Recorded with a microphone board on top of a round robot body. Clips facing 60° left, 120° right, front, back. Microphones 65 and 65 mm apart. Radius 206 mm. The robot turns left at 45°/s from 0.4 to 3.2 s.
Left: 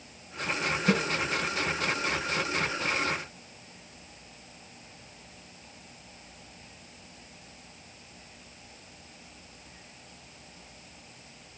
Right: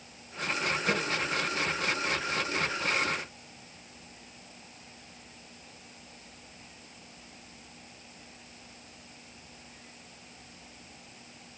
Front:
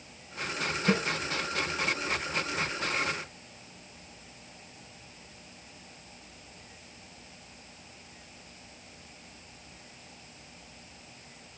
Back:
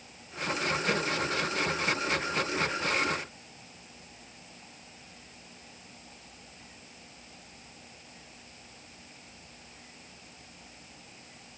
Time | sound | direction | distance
0.9 | a snare drum | 55° left | 3 m